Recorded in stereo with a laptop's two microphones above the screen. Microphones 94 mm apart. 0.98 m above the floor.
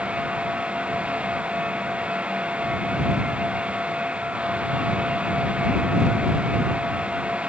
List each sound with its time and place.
0.0 s a fan: 10° right (ahead or behind)